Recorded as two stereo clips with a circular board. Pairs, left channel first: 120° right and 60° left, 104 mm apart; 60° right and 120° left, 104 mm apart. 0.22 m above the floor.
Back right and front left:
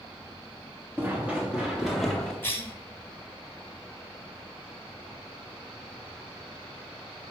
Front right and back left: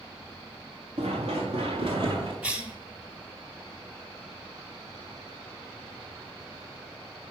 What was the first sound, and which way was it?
Running footsteps, 130° left.